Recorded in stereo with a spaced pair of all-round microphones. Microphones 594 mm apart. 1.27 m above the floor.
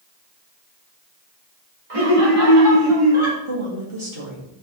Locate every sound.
1.9 s laughter: 65° right (ahead or behind), 3 m; by 3.4 s 50° right (ahead or behind), 3.5 m
3.5 s a woman speaking: 55° right (ahead or behind), 2.5 m